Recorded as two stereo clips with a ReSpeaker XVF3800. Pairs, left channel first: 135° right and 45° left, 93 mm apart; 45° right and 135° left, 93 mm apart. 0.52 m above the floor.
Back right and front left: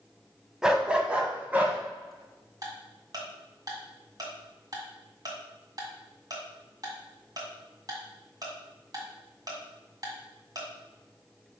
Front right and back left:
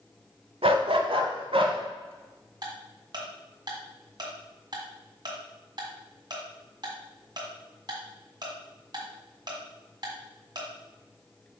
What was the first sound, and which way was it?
A dog barking, 130° left.